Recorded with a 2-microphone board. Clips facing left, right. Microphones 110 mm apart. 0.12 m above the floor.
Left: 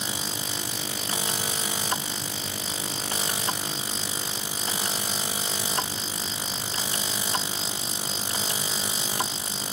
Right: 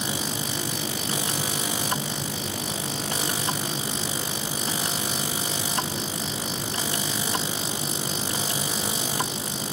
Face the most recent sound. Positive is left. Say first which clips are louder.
# right 4 dB
turn(degrees=-70)  # may be behind; listen again after turning